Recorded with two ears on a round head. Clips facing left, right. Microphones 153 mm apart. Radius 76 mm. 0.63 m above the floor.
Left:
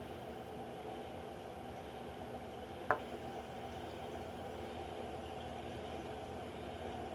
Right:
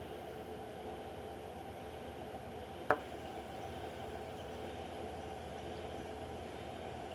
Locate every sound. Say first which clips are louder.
2.9 s a thud: right 3 dB; 40° right (ahead or behind), 0.5 m